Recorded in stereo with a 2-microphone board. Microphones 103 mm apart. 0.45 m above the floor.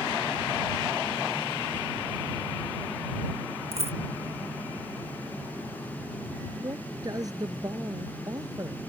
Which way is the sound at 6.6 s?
35° right (ahead or behind).